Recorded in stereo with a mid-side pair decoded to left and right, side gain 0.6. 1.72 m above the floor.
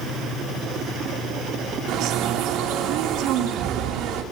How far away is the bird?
About 3 m.